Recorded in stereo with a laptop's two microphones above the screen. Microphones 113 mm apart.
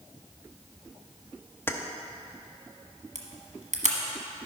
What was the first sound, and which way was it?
Keys jangling, 20° left (ahead or behind).